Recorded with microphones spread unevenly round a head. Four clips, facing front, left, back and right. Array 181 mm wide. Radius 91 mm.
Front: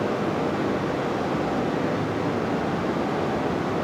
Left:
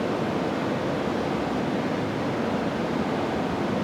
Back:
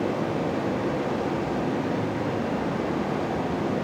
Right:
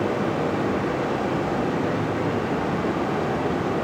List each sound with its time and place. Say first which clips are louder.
0.0 s running water: right 2 dB, front 2 dB; 60° right, 1.8 m